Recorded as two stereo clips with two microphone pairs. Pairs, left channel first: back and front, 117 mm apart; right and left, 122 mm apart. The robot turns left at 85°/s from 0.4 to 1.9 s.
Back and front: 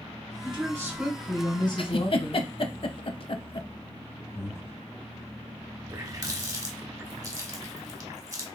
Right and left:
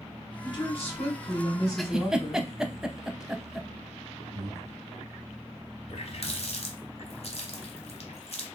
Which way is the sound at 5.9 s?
60° right.